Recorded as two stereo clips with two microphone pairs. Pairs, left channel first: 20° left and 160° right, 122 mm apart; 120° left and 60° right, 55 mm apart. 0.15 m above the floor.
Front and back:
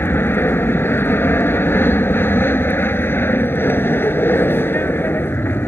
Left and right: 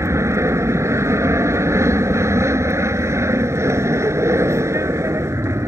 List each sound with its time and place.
0.0 s an aircraft: 50° right